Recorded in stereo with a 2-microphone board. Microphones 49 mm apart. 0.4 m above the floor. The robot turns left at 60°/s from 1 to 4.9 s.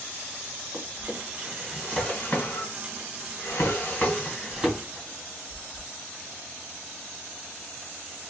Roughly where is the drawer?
Right.